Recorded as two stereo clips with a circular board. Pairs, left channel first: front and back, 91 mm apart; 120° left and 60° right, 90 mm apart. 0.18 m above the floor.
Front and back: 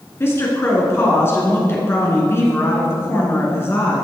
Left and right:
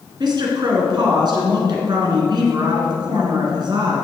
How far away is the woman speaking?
About 2.5 m.